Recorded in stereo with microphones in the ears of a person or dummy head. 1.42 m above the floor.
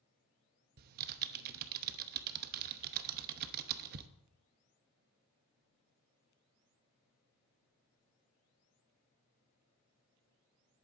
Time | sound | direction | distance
0.8 | typing on a keyboard | 50° right (ahead or behind) | 0.7 m